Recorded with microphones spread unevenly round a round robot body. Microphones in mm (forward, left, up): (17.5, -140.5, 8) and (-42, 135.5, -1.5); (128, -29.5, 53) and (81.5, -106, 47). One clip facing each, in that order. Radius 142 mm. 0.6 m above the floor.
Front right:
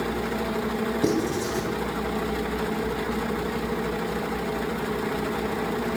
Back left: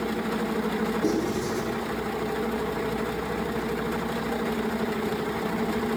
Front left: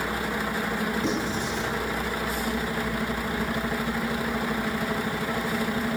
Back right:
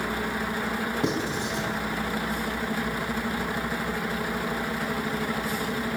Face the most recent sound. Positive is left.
turn(degrees=-105)